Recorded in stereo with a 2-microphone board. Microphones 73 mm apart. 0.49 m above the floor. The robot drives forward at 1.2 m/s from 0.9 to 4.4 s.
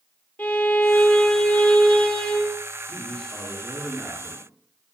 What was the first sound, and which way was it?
A violin, 20° left (ahead or behind).